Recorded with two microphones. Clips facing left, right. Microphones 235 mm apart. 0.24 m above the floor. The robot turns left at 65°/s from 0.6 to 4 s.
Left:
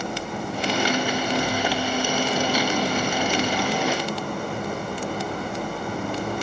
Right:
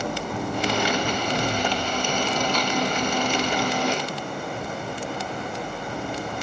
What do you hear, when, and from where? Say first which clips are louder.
0.0 s an engine running: right 1 dB; 90° right, 7.5 m; by 6.4 s 50° left, 7.5 m